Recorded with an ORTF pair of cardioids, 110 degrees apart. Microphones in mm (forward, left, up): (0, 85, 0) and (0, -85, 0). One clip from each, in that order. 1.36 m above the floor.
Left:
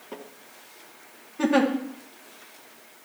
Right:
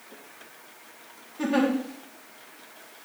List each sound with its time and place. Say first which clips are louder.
1.4 s a giggle: left 3 dB; 30° left, 1.7 m